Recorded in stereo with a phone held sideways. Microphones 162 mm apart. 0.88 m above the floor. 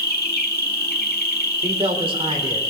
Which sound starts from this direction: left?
An insect, at 0.0 s.